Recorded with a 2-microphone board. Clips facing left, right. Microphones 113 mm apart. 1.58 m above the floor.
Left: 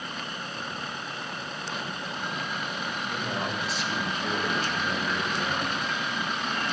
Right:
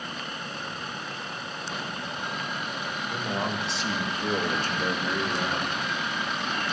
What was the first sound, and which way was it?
A man speaking, 10° right (ahead or behind).